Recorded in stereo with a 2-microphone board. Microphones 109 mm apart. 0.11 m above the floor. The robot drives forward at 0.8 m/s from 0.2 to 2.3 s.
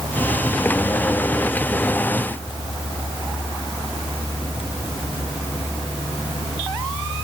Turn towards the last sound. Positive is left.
No sound to turn to.